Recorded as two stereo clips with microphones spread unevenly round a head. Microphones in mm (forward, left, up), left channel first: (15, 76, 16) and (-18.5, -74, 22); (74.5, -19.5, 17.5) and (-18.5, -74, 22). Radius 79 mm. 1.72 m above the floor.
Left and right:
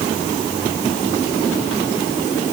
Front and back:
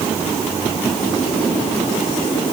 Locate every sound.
Only background noise.